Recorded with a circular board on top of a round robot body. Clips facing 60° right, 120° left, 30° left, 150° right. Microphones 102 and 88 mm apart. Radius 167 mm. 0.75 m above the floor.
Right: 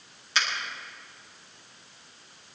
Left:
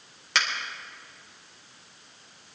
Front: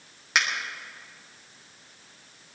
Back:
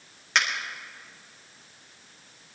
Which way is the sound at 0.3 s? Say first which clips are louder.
Left 1 dB, even; 115° left.